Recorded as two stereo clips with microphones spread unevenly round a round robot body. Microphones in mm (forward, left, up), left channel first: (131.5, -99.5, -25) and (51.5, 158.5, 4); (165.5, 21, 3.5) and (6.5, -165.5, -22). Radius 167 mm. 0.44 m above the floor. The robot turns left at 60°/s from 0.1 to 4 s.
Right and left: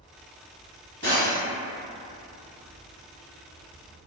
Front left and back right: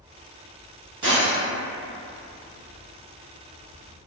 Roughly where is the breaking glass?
Behind right.